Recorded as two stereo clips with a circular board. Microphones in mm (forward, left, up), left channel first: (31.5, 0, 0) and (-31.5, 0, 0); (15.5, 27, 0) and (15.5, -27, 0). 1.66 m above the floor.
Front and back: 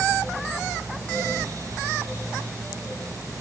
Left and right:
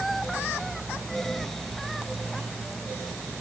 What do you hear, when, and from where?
Only background noise.